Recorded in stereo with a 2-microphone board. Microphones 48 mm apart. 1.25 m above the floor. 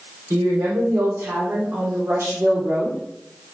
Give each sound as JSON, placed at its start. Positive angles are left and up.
{"t": 0.3, "sound": "a woman speaking", "side_deg": -85, "distance_m": 4.0}